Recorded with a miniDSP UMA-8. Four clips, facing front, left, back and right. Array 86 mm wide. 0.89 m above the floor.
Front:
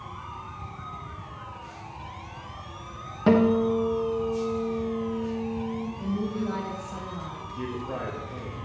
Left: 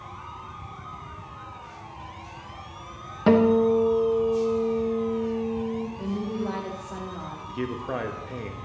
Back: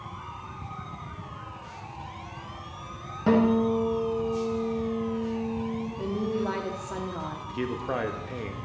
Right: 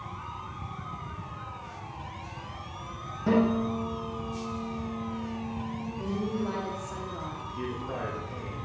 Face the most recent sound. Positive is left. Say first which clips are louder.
# left 7 dB, back 3 dB
turn(degrees=145)